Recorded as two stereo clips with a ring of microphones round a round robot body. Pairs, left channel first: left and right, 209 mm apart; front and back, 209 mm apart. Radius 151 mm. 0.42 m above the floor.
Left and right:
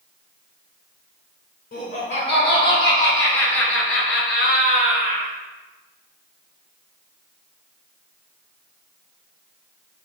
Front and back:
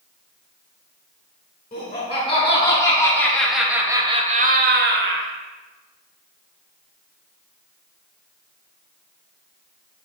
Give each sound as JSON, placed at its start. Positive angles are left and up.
{"t": 1.7, "sound": "laughter", "azimuth_deg": 60, "distance_m": 4.0}